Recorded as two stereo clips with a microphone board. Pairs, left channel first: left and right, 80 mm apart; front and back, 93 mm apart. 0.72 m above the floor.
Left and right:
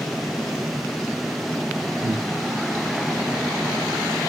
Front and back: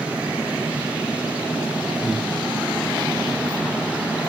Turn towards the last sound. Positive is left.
turn(degrees=-65)